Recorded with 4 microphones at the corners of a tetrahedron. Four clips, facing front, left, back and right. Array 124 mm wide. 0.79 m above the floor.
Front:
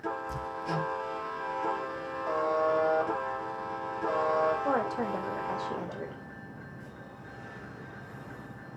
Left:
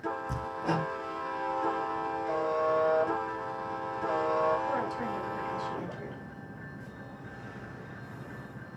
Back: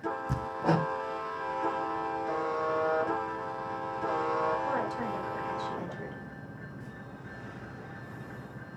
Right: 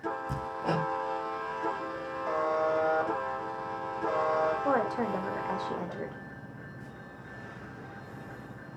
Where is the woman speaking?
55° right, 3 m.